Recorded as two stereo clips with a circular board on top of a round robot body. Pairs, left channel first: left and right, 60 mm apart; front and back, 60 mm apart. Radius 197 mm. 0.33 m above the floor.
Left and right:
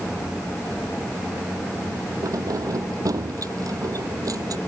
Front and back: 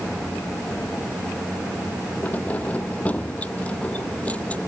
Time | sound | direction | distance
2.2 | keys jangling | 65° right | ?